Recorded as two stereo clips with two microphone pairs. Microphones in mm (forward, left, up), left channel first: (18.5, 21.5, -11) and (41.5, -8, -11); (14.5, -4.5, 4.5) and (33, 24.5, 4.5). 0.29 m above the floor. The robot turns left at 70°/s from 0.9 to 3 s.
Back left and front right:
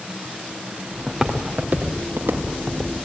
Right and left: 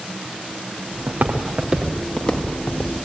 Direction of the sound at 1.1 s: 40° left.